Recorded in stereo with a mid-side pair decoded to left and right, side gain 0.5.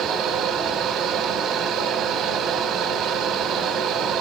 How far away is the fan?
About 1.3 m.